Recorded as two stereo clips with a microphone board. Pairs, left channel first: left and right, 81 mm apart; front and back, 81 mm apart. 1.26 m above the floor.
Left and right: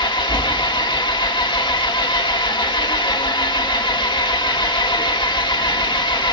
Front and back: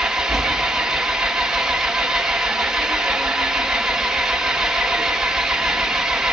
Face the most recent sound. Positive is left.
turn(degrees=100)